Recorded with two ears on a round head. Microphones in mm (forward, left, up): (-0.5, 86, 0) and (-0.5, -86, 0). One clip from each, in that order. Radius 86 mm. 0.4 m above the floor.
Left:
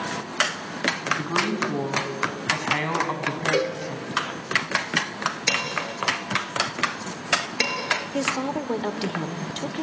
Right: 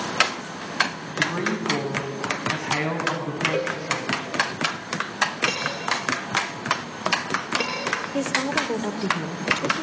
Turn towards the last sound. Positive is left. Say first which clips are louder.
# right 2 dB
turn(degrees=10)  # may be behind; listen again after turning